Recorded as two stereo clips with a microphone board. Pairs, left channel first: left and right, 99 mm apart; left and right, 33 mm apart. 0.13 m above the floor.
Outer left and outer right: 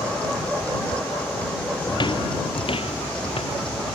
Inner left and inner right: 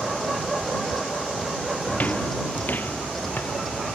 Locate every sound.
1.9 s footsteps: 45° left (ahead or behind); by 3.8 s 65° left (ahead or behind)